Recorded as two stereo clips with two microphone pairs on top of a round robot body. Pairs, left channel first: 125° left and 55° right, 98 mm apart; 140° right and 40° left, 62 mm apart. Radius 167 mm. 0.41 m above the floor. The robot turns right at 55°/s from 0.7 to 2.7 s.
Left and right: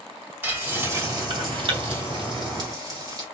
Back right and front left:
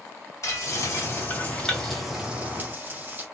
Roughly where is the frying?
Behind right.